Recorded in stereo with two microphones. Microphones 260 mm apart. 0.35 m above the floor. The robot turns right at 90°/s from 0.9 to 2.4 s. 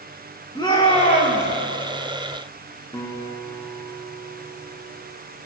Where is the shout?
20° left, 4.5 m; by 1.5 s 70° left, 4.5 m.